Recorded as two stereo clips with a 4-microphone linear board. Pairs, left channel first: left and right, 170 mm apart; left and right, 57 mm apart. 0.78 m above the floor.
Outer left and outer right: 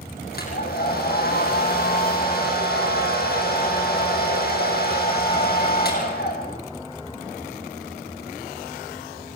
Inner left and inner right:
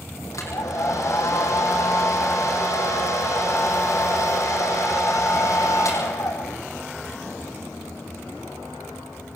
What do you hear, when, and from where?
0.3 s a hair dryer: 65° left (ahead or behind), 7 m